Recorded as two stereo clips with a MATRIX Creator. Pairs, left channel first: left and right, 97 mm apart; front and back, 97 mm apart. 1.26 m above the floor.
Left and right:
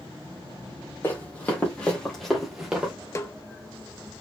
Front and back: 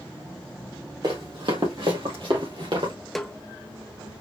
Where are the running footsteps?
155° left, 2.5 m; by 2.9 s 165° right, 2.0 m.